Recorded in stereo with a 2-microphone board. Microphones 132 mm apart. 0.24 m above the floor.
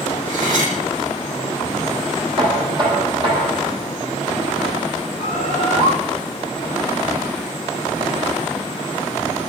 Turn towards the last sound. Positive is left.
turn(degrees=-60)  # may be behind; listen again after turning